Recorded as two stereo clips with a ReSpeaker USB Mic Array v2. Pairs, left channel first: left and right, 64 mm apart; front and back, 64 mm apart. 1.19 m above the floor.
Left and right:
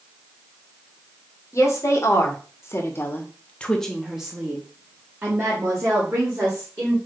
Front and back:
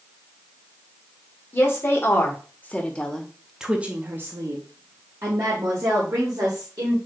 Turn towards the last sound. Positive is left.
turn(degrees=-145)